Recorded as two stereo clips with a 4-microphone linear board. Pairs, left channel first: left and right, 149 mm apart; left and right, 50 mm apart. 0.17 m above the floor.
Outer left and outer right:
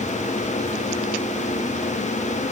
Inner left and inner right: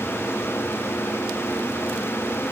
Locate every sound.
Only background noise.